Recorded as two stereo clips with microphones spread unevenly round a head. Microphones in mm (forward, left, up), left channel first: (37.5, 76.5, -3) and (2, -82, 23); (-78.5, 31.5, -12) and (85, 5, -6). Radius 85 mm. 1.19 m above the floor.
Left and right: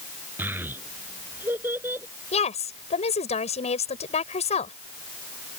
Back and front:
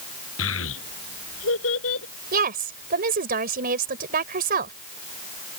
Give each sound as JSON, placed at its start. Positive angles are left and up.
{"t": 0.4, "sound": "a child speaking", "azimuth_deg": 180}
{"t": 2.3, "sound": "a woman speaking", "azimuth_deg": 25}